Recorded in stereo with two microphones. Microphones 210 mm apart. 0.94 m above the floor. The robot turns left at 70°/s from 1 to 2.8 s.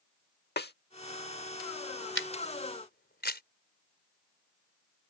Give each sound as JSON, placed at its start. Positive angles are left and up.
{"t": 0.6, "sound": "a snare drum", "side_deg": 50}
{"t": 2.1, "sound": "a camera shutter", "side_deg": 75}